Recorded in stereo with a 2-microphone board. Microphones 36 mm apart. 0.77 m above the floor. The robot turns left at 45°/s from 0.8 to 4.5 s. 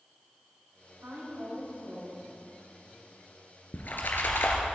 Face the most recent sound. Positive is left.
turn(degrees=95)